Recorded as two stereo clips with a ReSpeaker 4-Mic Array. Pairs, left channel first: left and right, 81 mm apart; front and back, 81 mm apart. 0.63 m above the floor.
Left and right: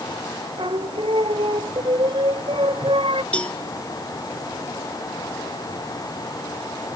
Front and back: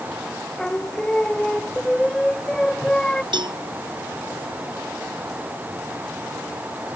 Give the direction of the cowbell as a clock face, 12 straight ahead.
6 o'clock.